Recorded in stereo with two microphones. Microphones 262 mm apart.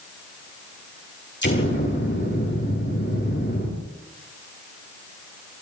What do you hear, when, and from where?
1.4 s an explosion: 45° left (ahead or behind), 7.5 m